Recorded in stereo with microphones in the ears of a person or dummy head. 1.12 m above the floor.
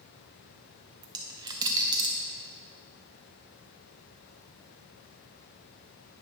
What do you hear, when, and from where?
1.0 s a dropped coin: 20° right (ahead or behind), 0.6 m